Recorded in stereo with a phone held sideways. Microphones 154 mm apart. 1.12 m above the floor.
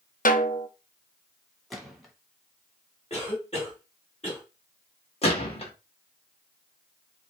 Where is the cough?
45° left (ahead or behind), 2.5 m.